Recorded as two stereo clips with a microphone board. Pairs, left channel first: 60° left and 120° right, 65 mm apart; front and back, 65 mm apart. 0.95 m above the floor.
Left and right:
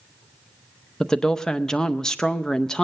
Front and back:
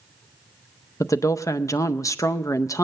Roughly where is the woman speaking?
Ahead.